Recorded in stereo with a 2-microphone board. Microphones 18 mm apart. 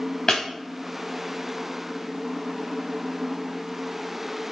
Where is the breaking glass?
30° left (ahead or behind), 3 m.